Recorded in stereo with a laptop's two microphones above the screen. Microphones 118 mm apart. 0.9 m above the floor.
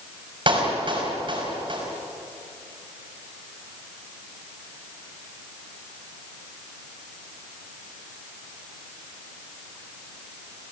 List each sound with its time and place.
0.5 s a clap: 45° right (ahead or behind), 4.5 m